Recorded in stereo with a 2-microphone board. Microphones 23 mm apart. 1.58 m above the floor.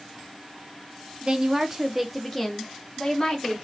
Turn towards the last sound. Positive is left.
turn(degrees=30)  # may be behind; listen again after turning